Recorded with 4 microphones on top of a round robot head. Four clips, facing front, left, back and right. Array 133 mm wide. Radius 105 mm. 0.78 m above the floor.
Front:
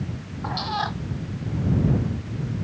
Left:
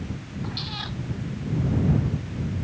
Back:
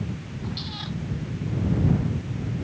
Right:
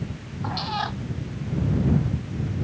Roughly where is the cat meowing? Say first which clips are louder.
Right 11 dB, front 10 dB; ahead right.